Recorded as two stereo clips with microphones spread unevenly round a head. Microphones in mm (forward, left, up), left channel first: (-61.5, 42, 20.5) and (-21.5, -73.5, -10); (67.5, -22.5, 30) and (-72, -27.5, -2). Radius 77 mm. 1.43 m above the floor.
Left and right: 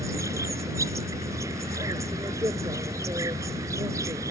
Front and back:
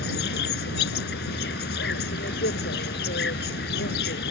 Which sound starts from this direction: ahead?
An insect, at 0.0 s.